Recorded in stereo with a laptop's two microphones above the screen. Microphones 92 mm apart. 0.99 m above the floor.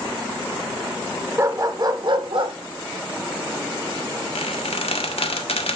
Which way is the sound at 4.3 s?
85° left.